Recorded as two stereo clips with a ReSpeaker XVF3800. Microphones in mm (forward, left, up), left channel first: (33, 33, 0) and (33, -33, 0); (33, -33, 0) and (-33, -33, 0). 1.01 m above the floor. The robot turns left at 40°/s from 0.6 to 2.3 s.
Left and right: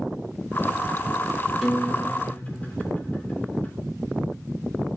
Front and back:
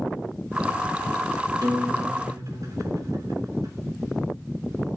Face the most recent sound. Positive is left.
turn(degrees=155)